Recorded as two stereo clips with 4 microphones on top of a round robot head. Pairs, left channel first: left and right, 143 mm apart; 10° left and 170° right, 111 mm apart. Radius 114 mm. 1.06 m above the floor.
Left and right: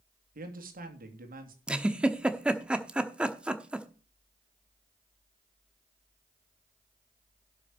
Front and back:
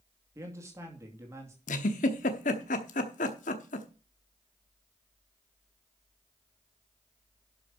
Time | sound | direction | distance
0.3 | a man speaking | 100° right | 2.5 m
1.7 | a giggle | 10° right | 0.9 m